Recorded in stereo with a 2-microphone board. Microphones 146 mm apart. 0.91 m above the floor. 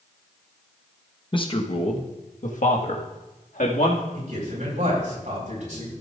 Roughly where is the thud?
No thud in this recording.